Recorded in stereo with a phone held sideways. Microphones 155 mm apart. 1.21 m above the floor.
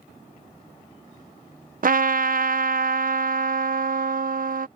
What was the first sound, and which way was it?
A trumpet, 65° right (ahead or behind).